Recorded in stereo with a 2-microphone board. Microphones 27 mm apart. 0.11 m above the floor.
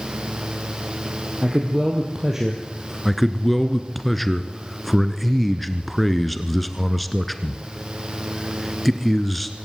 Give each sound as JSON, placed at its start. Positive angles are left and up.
{"t": 1.4, "sound": "a man speaking", "side_deg": -20, "distance_m": 3.5}
{"t": 3.0, "sound": "a man speaking", "side_deg": 0, "distance_m": 1.3}